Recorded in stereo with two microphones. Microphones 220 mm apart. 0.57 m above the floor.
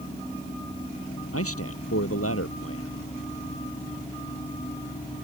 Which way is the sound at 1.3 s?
80° left.